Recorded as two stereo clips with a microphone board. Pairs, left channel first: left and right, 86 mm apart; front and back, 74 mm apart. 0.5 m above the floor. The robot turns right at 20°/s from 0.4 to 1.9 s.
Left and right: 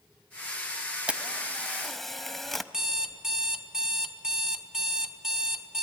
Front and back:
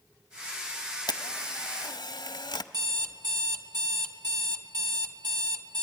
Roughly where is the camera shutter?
Ahead.